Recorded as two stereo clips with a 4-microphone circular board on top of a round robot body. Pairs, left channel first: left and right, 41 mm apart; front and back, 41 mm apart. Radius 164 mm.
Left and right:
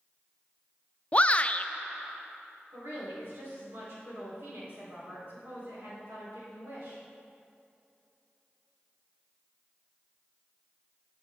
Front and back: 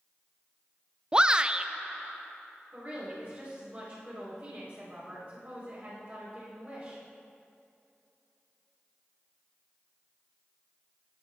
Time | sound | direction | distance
1.1 | a shout | 125° left | 0.6 m
2.7 | a woman speaking | 125° right | 3.5 m